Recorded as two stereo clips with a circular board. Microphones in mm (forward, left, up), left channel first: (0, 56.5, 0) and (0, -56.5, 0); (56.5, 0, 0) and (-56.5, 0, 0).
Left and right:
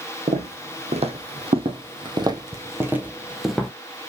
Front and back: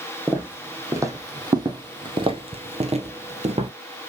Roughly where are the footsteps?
Right.